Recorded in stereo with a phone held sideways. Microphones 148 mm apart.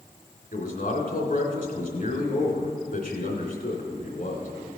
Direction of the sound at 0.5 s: 70° left (ahead or behind).